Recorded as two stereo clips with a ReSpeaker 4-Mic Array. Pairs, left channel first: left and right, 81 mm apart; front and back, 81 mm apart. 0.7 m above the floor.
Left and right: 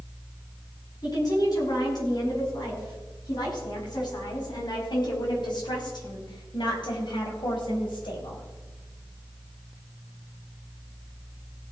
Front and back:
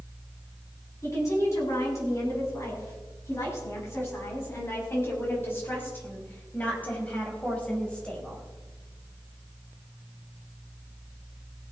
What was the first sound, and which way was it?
A woman speaking, 50° left.